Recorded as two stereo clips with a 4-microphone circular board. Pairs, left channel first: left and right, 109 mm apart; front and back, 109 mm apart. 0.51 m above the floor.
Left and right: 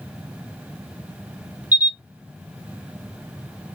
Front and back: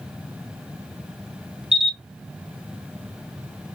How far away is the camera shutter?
About 3 m.